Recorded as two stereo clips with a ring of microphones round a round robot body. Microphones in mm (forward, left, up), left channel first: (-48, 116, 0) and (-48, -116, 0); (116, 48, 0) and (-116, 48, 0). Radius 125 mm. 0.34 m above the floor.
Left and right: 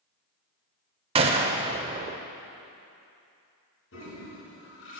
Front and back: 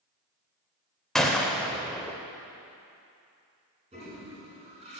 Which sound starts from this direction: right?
A gunshot, at 1.1 s.